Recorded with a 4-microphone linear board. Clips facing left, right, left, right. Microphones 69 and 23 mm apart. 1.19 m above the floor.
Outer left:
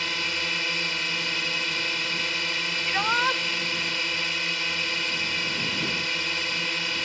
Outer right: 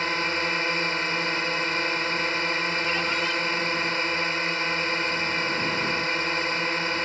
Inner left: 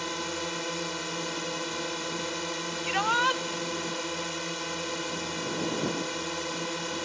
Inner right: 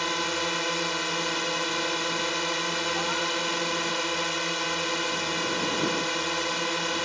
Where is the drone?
30° right (ahead or behind).